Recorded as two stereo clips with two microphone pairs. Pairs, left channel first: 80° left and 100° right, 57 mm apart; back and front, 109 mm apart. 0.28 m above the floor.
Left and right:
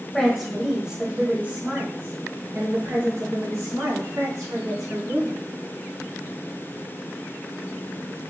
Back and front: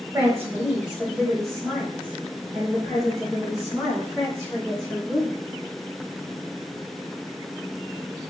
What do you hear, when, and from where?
0.1 s a woman speaking: 5° left, 1.4 m; by 5.3 s 120° right, 4 m